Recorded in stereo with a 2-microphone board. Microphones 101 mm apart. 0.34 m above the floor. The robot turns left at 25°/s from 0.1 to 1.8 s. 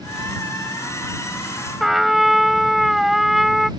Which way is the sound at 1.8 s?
Centre (ahead or behind).